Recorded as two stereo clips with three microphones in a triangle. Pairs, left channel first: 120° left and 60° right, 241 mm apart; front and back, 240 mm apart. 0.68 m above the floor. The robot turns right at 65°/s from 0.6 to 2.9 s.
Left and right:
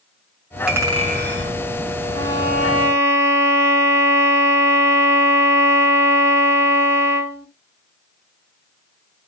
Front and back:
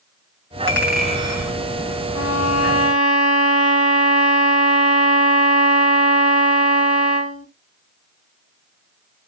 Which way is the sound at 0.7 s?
145° right.